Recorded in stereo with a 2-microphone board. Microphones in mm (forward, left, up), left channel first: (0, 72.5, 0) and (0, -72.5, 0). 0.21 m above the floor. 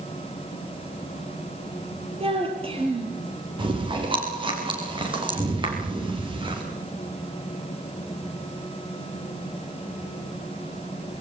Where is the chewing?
35° right (ahead or behind), 7 m.